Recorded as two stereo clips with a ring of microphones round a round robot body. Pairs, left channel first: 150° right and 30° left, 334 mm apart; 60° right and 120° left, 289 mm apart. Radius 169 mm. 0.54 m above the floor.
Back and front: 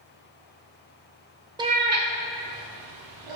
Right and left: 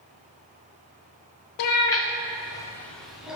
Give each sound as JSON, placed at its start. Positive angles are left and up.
{"t": 1.6, "sound": "a cat meowing", "azimuth_deg": -50, "distance_m": 1.0}